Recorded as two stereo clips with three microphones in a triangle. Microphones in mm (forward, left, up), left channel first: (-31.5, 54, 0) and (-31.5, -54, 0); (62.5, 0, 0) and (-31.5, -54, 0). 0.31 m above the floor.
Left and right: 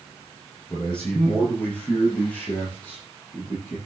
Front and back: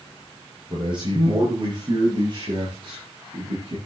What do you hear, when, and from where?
0.7 s a man speaking: 170° left, 7 m; by 3.8 s 165° left, 10 m